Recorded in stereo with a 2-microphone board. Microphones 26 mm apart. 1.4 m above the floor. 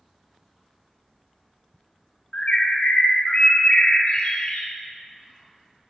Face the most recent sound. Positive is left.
turn(degrees=55)  # may be behind; listen again after turning